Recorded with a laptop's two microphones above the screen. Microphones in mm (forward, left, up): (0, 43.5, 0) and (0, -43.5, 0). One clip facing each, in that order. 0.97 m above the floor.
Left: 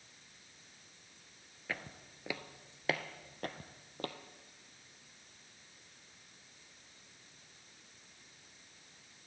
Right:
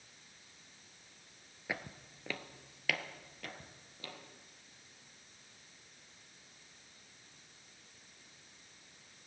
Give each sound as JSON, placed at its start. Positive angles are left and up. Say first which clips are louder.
{"t": 1.7, "sound": "footsteps", "louder": "right 1 dB", "side_deg": -15, "distance_m": 1.0}